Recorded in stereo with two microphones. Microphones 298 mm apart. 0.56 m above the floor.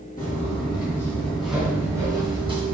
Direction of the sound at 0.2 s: 30° left (ahead or behind).